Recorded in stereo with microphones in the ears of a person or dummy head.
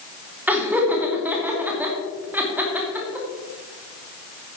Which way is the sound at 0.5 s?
10° right (ahead or behind).